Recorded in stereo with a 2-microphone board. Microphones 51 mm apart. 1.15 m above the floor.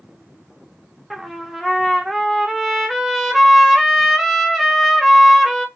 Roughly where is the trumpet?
Centre.